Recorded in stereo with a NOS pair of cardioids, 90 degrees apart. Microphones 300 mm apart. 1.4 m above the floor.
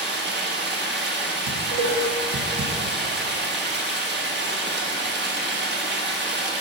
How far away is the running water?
About 1.5 m.